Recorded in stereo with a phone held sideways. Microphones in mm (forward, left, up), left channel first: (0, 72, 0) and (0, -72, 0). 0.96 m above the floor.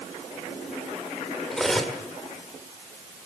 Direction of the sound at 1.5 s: 5° left (ahead or behind).